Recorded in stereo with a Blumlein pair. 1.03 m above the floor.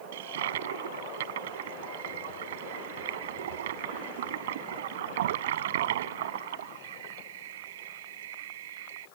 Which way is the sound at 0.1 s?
55° right.